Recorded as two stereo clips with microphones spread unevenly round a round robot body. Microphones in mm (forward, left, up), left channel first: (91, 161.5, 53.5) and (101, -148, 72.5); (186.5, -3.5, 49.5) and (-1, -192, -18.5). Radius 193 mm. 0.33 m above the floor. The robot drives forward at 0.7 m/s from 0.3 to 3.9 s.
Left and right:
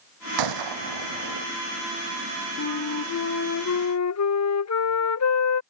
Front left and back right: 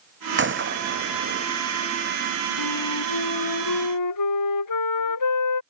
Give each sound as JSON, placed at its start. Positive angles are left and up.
{"t": 0.4, "sound": "a gunshot", "azimuth_deg": -90}
{"t": 2.6, "sound": "a flute", "azimuth_deg": 50}